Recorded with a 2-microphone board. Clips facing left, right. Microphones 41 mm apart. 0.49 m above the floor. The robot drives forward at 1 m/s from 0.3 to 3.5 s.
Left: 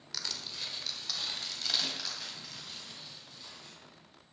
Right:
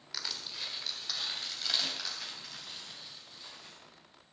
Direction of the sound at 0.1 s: 10° right (ahead or behind).